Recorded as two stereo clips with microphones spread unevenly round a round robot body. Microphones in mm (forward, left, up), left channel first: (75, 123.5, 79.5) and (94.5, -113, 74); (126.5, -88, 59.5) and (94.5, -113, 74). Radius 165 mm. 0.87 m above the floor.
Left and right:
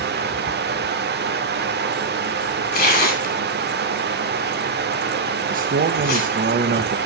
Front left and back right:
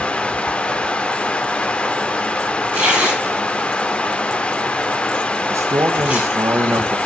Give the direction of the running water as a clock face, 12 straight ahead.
1 o'clock.